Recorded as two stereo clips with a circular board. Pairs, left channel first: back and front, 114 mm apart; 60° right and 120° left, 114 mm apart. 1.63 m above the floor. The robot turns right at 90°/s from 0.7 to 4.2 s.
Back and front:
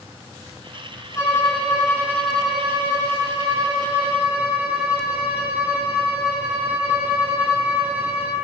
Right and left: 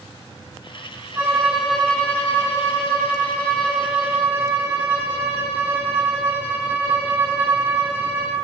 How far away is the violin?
About 0.7 m.